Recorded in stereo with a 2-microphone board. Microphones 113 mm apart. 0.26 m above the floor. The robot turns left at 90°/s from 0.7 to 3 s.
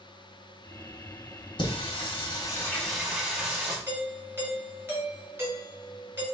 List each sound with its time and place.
1.6 s singing: 45° left (ahead or behind), 1.4 m; by 3.8 s 5° right (ahead or behind), 1.4 m
3.9 s a doorbell: 20° right (ahead or behind), 1.6 m